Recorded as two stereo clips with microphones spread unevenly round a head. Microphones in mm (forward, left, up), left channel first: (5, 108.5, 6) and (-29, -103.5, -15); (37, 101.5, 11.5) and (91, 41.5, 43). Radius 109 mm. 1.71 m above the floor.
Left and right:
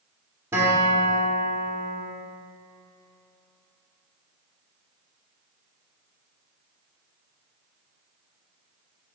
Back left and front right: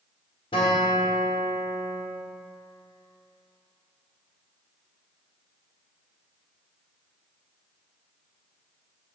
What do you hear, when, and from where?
0.5 s a guitar: straight behind, 1.7 m